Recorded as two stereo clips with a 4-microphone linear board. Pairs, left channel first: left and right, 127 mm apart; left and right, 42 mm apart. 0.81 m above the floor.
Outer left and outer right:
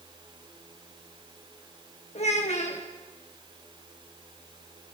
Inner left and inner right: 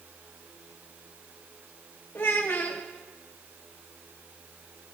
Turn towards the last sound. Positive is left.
turn(degrees=60)  # may be behind; listen again after turning